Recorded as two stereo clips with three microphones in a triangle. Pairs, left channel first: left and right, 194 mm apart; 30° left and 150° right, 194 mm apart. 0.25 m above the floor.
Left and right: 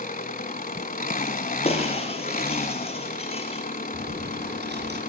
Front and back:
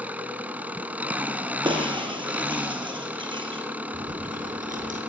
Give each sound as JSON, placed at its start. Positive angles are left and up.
{"t": 0.0, "sound": "an engine running", "azimuth_deg": 130, "distance_m": 1.1}
{"t": 1.6, "sound": "breaking glass", "azimuth_deg": 145, "distance_m": 4.0}
{"t": 3.9, "sound": "chewing", "azimuth_deg": -110, "distance_m": 4.5}